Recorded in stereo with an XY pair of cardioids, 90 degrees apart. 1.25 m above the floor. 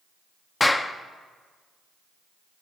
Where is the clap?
25° left, 0.7 m.